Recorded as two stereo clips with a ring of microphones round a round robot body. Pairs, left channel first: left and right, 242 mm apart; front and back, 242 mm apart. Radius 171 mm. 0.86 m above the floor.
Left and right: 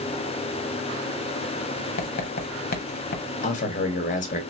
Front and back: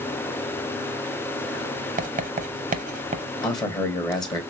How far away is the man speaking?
About 1.1 m.